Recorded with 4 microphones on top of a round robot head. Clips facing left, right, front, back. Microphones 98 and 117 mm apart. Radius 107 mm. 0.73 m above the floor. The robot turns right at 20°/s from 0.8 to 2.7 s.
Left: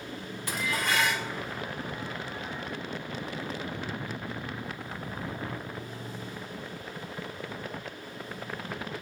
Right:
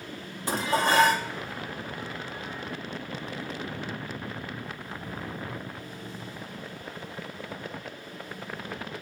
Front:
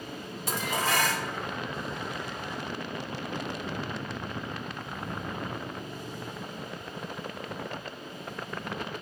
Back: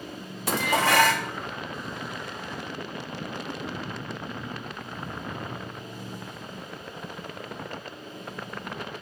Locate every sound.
0.5 s dishes clattering: 150° right, 0.7 m; by 1.3 s 140° right, 0.7 m